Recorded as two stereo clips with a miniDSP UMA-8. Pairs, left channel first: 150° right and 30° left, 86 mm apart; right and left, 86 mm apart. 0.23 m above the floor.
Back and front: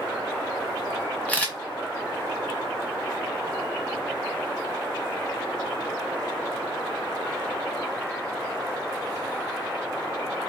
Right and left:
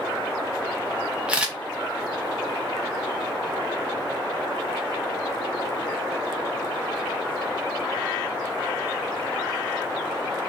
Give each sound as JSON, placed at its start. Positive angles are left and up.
{"t": 1.3, "sound": "a camera shutter", "azimuth_deg": 155, "distance_m": 0.9}